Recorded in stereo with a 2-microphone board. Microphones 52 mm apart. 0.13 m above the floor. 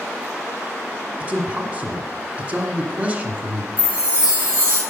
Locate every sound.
1.2 s a man speaking: 25° right (ahead or behind), 1.4 m
3.8 s a chime: 55° left (ahead or behind), 4 m